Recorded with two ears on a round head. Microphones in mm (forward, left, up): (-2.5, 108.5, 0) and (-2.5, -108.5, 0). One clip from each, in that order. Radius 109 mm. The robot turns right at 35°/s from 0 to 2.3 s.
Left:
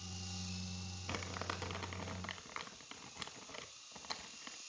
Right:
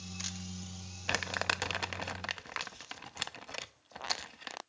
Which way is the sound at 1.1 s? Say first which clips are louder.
Right 11 dB; 50° right (ahead or behind).